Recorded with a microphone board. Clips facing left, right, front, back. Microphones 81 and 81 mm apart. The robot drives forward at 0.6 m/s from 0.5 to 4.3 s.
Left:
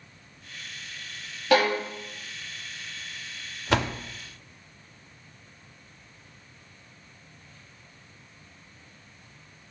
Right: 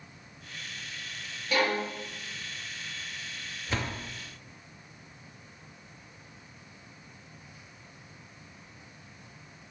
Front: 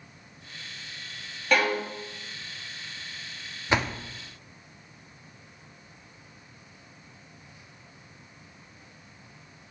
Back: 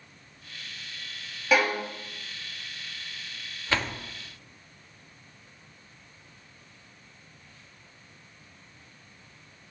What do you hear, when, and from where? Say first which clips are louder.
1.5 s a violin: left 6 dB, even; 95° left, 1.7 m; by 1.8 s 100° left, 1.7 m
3.7 s a door slam: left 8 dB, front 3 dB; 70° left, 0.6 m; by 4.0 s 90° left, 0.5 m